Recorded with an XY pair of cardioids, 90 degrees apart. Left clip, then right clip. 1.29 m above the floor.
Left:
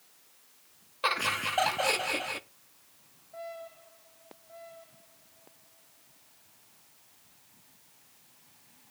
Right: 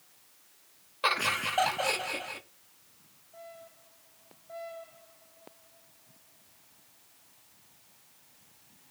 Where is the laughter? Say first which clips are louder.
Right 1 dB; 10° right, 1.3 m; by 2.4 s 45° left, 0.8 m.